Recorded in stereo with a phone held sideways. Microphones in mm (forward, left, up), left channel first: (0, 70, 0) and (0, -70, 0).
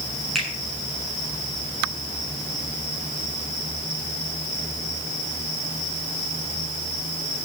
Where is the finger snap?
Centre (ahead or behind), 8 m.